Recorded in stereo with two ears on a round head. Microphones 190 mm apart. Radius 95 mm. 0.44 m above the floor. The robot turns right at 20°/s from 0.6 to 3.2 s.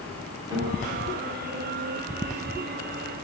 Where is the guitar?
20° right (ahead or behind), 1.4 m.